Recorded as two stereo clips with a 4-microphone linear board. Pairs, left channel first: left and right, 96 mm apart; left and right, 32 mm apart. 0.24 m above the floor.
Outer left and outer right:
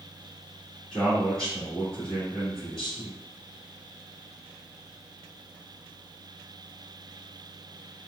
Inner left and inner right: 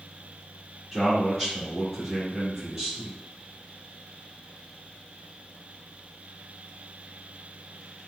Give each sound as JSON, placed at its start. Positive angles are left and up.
{"t": 0.9, "sound": "a man speaking", "side_deg": 5, "distance_m": 1.5}